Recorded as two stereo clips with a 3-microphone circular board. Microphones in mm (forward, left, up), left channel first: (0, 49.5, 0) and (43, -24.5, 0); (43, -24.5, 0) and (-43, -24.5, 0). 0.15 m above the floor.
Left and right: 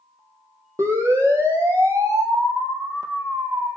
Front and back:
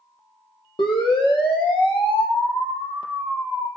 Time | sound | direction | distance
0.8 | a siren | 5° right | 4.5 m